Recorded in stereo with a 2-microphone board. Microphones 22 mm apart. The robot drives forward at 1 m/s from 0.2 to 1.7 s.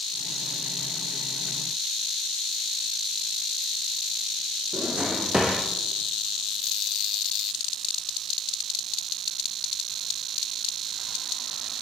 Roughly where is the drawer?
Right.